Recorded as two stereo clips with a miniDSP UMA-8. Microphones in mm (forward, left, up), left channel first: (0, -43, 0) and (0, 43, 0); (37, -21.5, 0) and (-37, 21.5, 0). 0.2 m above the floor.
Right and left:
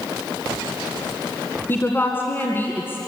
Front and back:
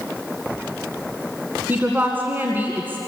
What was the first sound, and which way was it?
A woman speaking, 150° right.